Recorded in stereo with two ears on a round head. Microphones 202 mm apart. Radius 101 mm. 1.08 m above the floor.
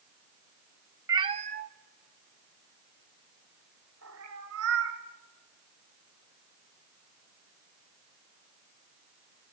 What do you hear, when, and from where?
1.1 s a cat meowing: 15° right (ahead or behind), 0.6 m; by 5.0 s 80° right, 2.5 m